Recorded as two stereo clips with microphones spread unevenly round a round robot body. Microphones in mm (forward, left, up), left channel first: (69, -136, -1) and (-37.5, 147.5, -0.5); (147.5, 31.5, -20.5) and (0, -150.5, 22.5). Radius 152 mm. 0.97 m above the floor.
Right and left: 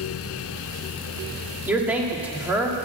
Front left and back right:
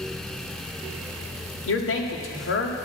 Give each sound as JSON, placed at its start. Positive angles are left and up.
{"t": 1.7, "sound": "a man speaking", "azimuth_deg": 25, "distance_m": 1.7}